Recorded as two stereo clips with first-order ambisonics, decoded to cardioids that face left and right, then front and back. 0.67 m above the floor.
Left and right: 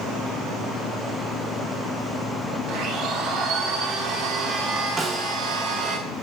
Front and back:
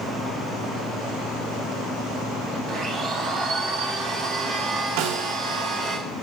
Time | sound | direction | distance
2.7 | a blender | 120° right | 4.5 m
5.0 | a snare drum | 165° right | 1.0 m